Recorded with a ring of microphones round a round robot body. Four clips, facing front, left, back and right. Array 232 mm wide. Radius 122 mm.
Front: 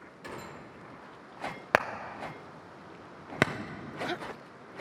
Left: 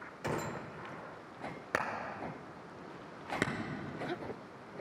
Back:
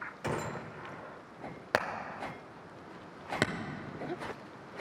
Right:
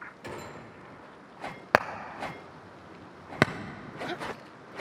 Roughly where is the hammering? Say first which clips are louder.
Right 10 dB, front 4 dB; right.